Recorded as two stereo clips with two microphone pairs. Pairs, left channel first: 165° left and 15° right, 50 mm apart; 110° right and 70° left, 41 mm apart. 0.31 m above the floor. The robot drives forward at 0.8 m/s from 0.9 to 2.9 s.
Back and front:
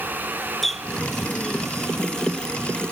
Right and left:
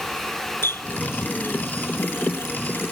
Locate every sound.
0.6 s a running tap: 105° right; by 2.9 s 120° right